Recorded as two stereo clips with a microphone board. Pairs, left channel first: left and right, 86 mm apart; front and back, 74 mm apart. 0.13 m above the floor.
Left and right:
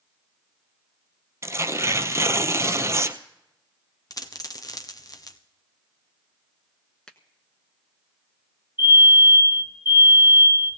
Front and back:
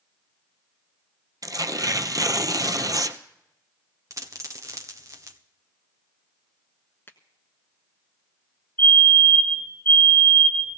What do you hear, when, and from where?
1.4 s tearing paper: 145° right, 0.7 m
4.1 s a dropped coin: 135° left, 1.1 m
7.1 s a finger snap: 20° left, 1.0 m
8.8 s a fire alarm: 65° left, 5.5 m